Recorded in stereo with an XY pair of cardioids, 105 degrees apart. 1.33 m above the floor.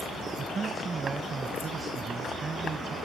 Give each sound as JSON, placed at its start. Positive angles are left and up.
{"t": 0.4, "sound": "a man speaking", "azimuth_deg": -30}